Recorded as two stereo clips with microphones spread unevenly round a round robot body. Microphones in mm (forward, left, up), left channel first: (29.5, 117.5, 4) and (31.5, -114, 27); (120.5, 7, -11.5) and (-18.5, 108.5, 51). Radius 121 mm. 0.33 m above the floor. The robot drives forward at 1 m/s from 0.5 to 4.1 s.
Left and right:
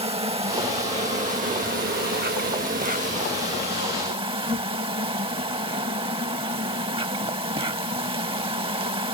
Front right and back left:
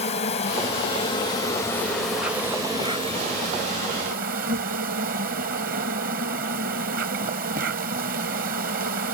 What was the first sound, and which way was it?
An insect, 25° right.